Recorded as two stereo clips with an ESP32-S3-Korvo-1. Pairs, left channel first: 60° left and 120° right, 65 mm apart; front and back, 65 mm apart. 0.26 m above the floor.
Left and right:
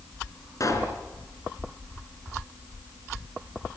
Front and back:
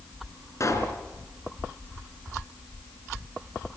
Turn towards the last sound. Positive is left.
turn(degrees=35)